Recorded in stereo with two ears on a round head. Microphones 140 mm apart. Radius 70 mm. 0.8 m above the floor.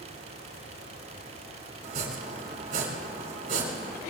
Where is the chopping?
55° right (ahead or behind), 3.5 m.